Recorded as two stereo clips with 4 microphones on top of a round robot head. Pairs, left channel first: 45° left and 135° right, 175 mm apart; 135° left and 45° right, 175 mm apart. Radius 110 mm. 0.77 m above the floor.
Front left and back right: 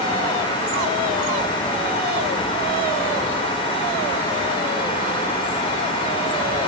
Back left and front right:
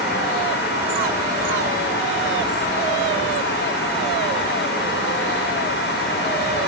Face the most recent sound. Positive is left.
No sound to turn to.